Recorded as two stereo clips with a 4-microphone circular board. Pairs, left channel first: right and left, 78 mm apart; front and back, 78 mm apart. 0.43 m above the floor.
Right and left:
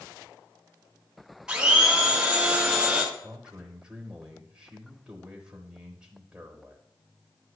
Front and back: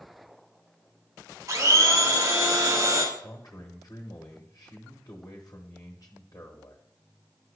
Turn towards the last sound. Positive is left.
turn(degrees=15)